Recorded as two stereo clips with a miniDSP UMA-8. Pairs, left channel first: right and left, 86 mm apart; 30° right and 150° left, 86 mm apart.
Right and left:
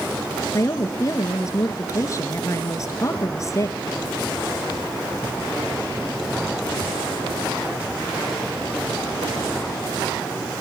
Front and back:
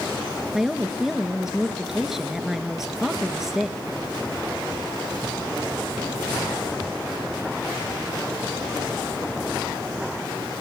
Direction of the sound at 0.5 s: 125° right.